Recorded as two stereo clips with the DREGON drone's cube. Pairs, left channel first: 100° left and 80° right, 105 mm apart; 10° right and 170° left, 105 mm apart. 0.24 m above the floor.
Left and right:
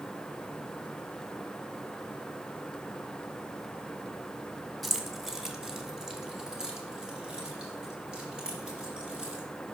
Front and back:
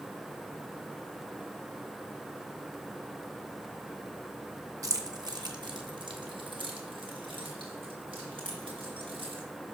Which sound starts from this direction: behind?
Keys jangling, at 4.8 s.